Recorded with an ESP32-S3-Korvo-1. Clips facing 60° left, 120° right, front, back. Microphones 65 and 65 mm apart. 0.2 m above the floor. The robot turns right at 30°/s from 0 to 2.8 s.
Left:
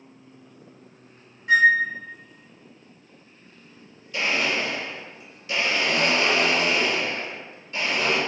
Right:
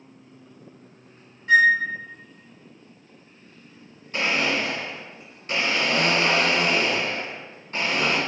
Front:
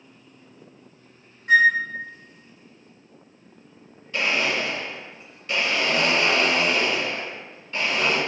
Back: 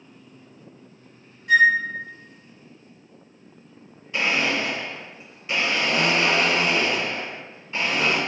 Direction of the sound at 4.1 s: 115° right.